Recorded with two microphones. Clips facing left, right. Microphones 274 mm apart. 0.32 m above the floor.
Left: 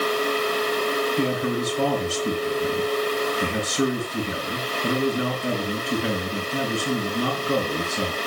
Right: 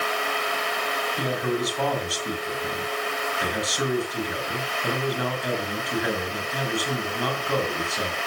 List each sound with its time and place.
1.2 s a man speaking: 30° left (ahead or behind), 4 m